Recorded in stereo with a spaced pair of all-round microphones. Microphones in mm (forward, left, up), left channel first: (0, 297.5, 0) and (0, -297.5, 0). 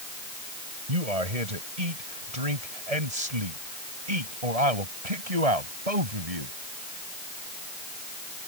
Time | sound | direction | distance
0.9 | a man speaking | 85° right | ?